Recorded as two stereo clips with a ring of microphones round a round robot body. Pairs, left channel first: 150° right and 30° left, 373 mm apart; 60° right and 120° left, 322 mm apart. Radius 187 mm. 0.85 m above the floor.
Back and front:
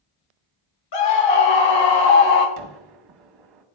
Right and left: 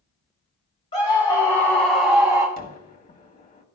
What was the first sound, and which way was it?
A scream, 135° right.